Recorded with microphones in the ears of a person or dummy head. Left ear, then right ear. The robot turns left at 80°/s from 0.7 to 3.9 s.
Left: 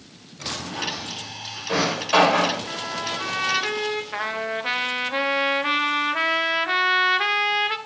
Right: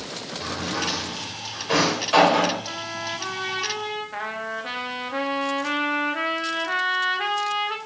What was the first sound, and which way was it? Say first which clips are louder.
A drawer: even; 70° right (ahead or behind).